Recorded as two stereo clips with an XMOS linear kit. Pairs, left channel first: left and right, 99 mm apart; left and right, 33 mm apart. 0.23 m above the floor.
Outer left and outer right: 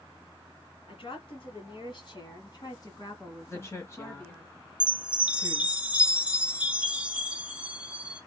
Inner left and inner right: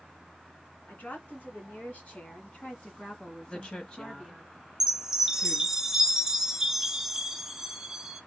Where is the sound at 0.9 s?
60° left (ahead or behind), 2.5 m; by 4.5 s 20° left (ahead or behind), 2.5 m.